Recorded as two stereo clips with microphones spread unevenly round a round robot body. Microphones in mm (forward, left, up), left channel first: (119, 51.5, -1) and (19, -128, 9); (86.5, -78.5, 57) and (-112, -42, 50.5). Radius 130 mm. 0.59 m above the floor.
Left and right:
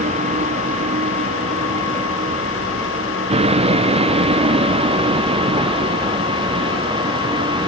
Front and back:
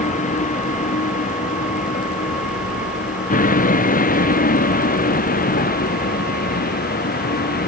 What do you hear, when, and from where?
0.0 s a vehicle: 60° right; by 7.7 s 50° right